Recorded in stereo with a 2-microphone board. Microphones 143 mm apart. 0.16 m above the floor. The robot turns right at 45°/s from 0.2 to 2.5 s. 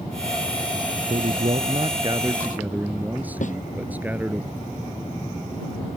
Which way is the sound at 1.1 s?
75° right.